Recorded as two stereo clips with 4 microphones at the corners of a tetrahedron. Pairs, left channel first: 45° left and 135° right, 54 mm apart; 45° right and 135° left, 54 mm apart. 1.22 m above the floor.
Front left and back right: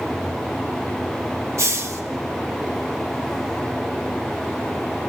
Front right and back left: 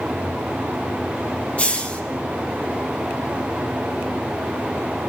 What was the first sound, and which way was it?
A hiss, 110° right.